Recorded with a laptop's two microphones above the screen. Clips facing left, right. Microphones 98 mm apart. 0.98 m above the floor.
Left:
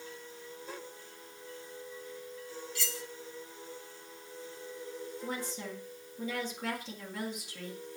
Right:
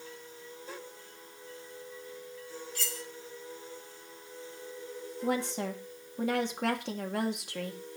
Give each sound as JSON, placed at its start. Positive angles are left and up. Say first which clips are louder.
{"t": 2.8, "sound": "cutlery clinking", "louder": "even", "side_deg": -40, "distance_m": 1.8}
{"t": 5.2, "sound": "a woman speaking", "louder": "right 10 dB", "side_deg": -65, "distance_m": 1.7}